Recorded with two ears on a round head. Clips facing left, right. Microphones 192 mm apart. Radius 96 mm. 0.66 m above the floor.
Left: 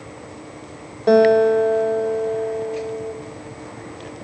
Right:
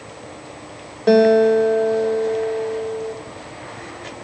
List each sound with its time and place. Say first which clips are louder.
1.1 s a guitar: right 1 dB; 5° right (ahead or behind), 1.0 m